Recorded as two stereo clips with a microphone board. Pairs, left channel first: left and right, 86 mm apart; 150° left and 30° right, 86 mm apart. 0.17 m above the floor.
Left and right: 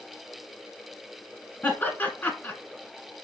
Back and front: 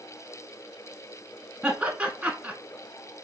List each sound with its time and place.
1.6 s laughter: 45° left, 1.4 m